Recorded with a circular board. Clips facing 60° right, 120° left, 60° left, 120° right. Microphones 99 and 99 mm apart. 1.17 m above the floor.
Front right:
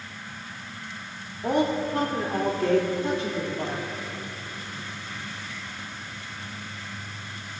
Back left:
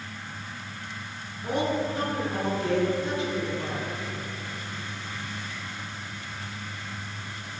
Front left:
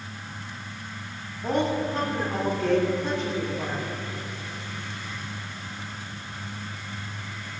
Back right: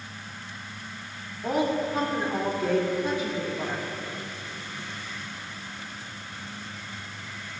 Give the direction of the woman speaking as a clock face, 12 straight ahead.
1 o'clock.